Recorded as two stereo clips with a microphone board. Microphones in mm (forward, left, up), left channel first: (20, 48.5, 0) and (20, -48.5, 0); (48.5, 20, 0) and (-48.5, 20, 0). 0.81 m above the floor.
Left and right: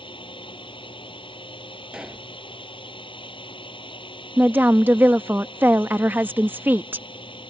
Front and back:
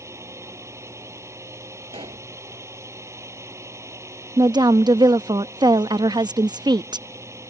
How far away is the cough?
No cough in this recording.